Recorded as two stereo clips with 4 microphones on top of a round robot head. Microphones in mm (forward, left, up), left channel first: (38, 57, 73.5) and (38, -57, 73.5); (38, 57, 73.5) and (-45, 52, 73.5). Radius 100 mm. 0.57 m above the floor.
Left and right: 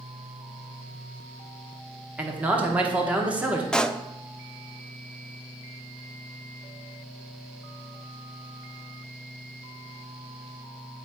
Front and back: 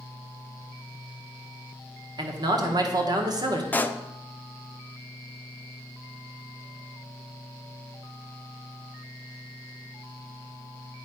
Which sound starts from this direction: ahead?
A pop, at 3.7 s.